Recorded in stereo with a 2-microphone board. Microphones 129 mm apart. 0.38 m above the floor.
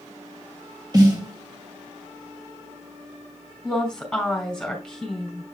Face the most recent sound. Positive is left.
turn(degrees=5)  # may be behind; listen again after turning